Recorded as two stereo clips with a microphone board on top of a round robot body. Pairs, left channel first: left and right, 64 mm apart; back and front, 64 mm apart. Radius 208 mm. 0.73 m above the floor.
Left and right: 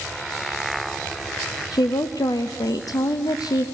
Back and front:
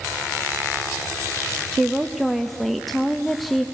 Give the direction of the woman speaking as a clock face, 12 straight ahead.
9 o'clock.